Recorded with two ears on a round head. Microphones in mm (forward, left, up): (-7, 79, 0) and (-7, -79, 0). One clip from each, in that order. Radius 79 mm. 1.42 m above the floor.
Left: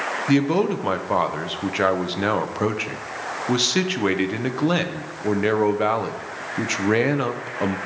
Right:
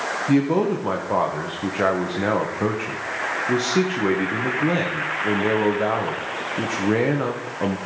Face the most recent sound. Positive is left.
turn(degrees=75)  # may be behind; listen again after turning